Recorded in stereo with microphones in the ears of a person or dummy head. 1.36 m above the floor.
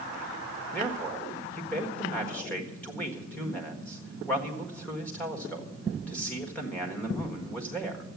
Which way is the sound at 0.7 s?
5° left (ahead or behind).